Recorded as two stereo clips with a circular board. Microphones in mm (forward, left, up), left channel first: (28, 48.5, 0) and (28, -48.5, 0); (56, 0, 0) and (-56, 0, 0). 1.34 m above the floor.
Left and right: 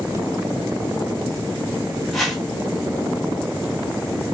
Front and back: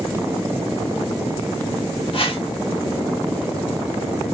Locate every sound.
2.1 s a whoosh: straight ahead, 1.0 m